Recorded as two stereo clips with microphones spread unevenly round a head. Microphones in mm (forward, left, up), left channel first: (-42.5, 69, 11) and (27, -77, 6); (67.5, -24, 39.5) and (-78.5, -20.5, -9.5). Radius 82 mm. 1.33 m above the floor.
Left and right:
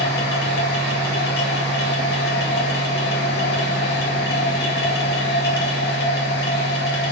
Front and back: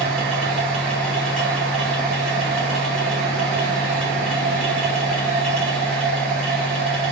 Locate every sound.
0.0 s a machine running: 85° left, 2.5 m